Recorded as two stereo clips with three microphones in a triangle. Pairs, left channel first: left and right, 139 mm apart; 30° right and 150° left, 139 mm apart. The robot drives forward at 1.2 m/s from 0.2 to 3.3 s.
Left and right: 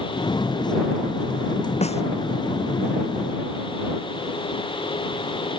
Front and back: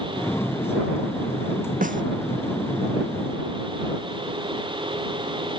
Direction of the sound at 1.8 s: 130° left.